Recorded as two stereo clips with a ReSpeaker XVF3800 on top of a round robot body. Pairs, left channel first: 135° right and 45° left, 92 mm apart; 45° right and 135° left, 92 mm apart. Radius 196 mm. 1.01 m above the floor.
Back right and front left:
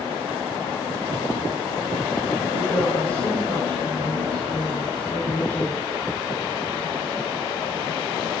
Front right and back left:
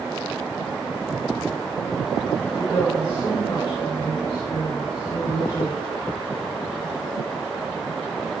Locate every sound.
2.5 s a woman speaking: 85° right, 6.5 m